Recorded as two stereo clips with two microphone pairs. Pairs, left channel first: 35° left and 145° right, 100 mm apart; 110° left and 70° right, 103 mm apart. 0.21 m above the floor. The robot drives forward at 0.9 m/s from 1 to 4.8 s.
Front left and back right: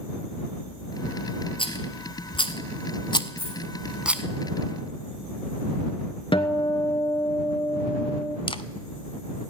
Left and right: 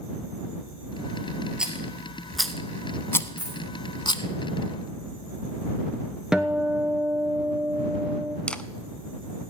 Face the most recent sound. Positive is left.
turn(degrees=30)